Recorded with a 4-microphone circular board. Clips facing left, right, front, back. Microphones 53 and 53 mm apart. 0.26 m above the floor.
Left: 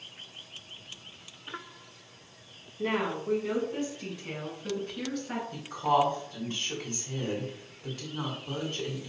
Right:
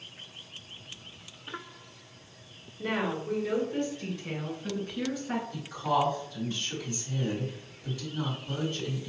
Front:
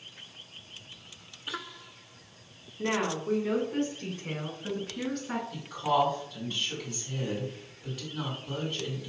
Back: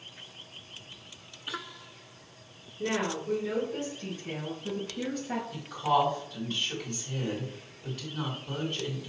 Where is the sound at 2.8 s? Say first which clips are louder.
Left 1 dB, front 1 dB; 40° left, 1.8 m; by 5.4 s 5° right, 2.5 m.